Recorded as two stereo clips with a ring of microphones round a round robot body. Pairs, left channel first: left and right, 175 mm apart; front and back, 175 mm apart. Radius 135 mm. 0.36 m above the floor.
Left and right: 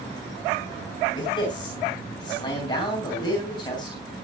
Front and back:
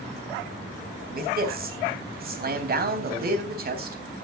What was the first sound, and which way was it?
A man speaking, 160° left.